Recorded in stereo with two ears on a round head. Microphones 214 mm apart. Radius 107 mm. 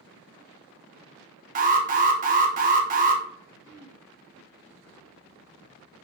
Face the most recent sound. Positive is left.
turn(degrees=65)  # may be behind; listen again after turning